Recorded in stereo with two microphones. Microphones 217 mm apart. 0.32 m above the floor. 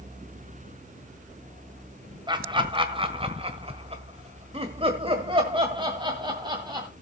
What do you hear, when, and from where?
2.3 s laughter: 20° right (ahead or behind), 1.7 m